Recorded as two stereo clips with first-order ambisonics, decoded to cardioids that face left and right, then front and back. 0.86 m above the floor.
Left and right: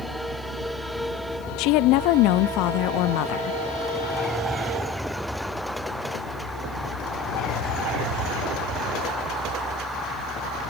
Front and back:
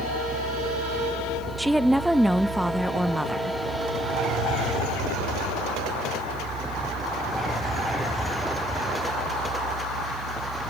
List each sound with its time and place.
1.6 s a woman speaking: 95° left, 0.8 m